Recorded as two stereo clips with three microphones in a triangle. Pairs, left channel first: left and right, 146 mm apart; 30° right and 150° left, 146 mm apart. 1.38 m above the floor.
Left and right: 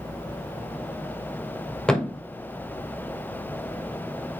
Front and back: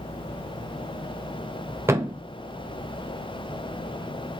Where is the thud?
165° left, 0.6 m.